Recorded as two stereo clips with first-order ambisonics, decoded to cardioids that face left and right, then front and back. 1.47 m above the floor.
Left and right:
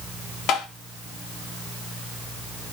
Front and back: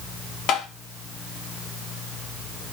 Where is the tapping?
45° left, 0.7 m.